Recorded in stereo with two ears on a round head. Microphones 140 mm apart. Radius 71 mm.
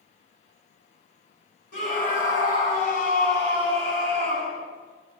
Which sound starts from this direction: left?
A scream, at 1.7 s.